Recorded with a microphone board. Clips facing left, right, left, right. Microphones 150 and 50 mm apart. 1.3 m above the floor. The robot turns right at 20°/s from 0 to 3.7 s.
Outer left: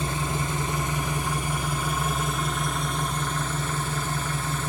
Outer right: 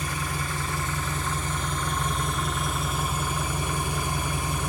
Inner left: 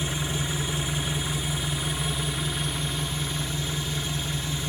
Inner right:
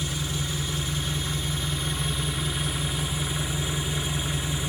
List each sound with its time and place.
0.0 s an engine running: 130° left, 1.0 m; by 4.7 s 155° right, 1.0 m